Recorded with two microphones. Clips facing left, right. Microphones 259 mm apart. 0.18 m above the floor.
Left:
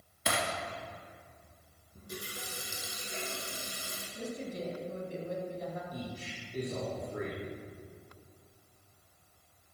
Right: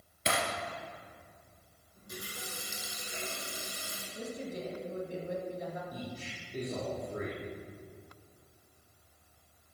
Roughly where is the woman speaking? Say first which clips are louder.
Left 1 dB; centre.